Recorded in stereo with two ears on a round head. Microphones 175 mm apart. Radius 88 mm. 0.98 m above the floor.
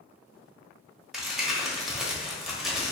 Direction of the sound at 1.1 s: Centre (ahead or behind).